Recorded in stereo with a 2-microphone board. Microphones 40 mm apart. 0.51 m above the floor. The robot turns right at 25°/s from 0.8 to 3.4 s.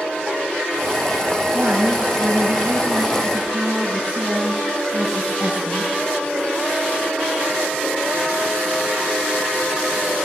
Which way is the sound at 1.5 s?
65° right.